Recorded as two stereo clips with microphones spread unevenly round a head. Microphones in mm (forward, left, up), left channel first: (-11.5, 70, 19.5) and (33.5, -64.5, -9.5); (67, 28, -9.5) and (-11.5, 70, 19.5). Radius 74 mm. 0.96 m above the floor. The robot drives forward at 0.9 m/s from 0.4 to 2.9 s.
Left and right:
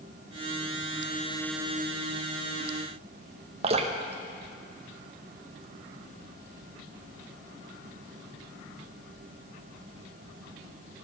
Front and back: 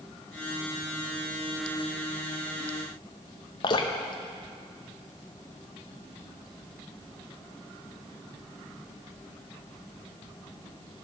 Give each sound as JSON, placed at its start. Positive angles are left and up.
{"t": 3.6, "sound": "dripping", "azimuth_deg": -35, "distance_m": 0.7}